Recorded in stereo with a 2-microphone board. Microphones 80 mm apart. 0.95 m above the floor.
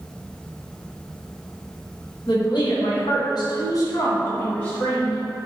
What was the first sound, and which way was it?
A woman speaking, 75° left (ahead or behind).